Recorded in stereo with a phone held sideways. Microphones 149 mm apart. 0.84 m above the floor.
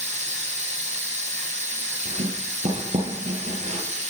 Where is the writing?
60° right (ahead or behind), 9 m.